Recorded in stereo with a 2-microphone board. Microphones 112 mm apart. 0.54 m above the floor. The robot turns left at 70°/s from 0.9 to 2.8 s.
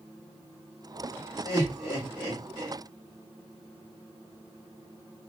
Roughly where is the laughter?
Left.